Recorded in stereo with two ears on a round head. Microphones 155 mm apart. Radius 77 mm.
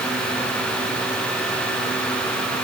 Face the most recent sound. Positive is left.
No sound to turn to.